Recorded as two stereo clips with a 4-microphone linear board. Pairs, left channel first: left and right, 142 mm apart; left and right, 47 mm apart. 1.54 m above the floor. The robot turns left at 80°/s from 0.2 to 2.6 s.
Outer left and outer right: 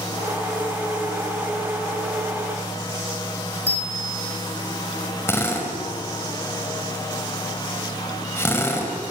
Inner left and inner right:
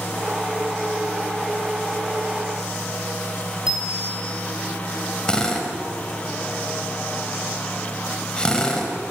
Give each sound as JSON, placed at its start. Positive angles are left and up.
{"t": 3.7, "sound": "a bicycle bell", "side_deg": -15, "distance_m": 7.5}
{"t": 5.3, "sound": "a drill", "side_deg": 15, "distance_m": 5.0}